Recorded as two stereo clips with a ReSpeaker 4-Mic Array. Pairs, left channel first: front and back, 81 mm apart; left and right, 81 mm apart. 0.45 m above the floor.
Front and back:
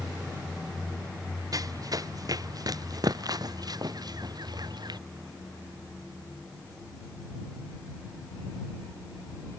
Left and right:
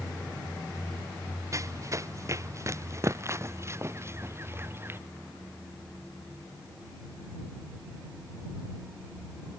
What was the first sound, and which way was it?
Running footsteps, 140° right.